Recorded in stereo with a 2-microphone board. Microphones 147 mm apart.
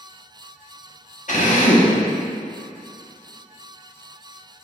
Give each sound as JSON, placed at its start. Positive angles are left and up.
{"t": 1.3, "sound": "a drill", "side_deg": 60, "distance_m": 1.1}